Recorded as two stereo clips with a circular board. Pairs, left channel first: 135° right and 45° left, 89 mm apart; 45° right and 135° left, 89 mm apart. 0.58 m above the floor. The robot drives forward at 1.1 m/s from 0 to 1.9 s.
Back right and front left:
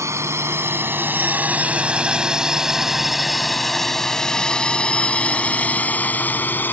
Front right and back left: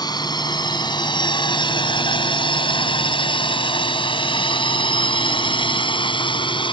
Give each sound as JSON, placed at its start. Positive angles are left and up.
{"t": 0.0, "sound": "a drone", "azimuth_deg": -10}